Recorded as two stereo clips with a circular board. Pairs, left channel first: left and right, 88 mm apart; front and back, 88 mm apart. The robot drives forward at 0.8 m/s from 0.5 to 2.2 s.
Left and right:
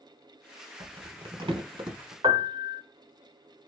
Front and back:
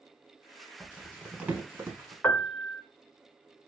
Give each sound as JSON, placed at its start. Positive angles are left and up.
{"t": 0.8, "sound": "crumpling", "azimuth_deg": -85, "distance_m": 1.4}
{"t": 2.2, "sound": "a piano", "azimuth_deg": -75, "distance_m": 0.6}